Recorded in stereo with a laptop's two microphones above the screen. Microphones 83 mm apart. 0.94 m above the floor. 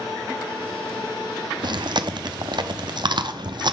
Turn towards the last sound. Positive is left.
turn(degrees=-60)  # may be behind; listen again after turning